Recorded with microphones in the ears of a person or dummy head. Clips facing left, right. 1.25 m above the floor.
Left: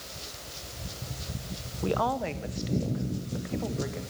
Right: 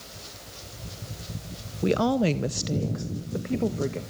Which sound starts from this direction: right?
A woman speaking, at 1.8 s.